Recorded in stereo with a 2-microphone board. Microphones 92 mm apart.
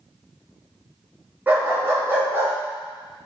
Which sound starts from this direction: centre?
A dog barking, at 1.5 s.